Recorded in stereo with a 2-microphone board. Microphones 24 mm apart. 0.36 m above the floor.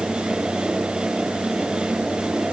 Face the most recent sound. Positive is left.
No sound to turn to.